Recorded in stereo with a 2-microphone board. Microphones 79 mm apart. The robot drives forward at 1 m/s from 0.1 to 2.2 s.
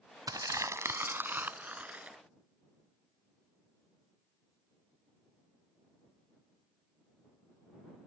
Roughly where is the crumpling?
Right.